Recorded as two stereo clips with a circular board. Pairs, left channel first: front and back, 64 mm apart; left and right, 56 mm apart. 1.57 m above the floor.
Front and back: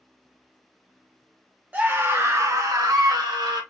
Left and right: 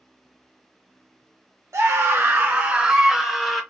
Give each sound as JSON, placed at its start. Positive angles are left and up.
{"t": 1.7, "sound": "a scream", "azimuth_deg": -115, "distance_m": 1.1}